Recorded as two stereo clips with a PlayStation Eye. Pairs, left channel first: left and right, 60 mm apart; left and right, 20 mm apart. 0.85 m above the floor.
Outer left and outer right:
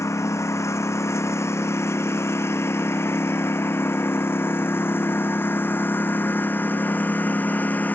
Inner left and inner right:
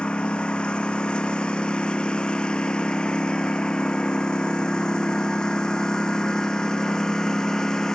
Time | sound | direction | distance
0.0 | a lawn mower | 50° left (ahead or behind) | ?